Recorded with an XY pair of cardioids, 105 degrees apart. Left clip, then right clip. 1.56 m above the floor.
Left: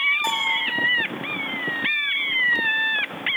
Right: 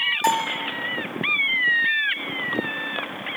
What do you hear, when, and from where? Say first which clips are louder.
0.2 s a bell: even; 50° right, 8 m